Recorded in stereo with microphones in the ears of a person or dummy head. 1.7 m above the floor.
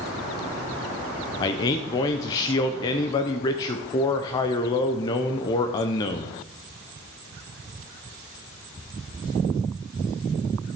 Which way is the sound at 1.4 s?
20° left (ahead or behind).